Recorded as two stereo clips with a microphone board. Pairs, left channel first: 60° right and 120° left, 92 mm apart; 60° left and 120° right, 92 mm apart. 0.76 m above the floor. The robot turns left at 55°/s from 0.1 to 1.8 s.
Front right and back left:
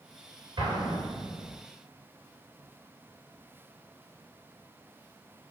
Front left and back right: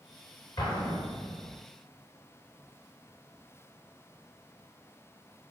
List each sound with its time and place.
0.6 s an explosion: 90° left, 1.7 m; by 1.6 s 35° left, 1.7 m